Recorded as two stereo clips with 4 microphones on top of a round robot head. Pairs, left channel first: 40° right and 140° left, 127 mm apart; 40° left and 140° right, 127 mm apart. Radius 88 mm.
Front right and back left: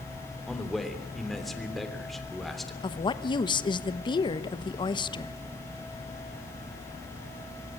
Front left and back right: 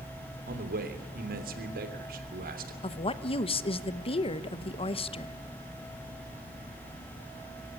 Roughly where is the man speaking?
Behind right.